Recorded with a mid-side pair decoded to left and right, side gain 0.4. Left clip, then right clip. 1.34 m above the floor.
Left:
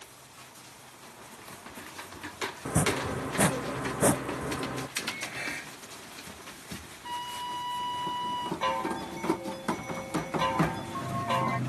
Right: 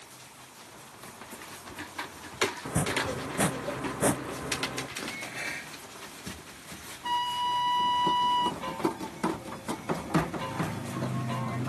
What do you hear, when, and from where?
2.6 s chopping: 25° left
5.0 s dishes clattering: straight ahead
7.0 s a flute: 50° right
8.6 s a chime: 65° left